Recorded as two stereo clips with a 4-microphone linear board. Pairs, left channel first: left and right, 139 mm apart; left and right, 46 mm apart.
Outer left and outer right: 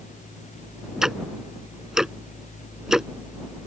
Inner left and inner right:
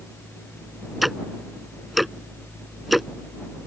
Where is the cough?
I don't hear a cough.